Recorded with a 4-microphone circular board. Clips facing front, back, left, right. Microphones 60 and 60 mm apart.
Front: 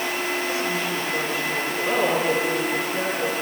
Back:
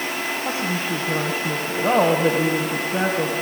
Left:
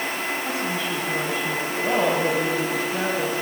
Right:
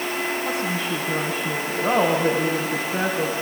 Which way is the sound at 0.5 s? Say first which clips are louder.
Back 1 dB, right 1 dB; 165° right.